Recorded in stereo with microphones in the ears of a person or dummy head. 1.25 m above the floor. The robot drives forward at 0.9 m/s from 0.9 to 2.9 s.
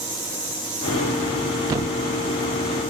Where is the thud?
25° right (ahead or behind), 0.7 m.